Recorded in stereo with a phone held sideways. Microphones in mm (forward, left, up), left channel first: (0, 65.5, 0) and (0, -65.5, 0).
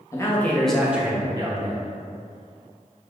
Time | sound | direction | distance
0.1 | a man speaking | 25° left (ahead or behind) | 0.9 m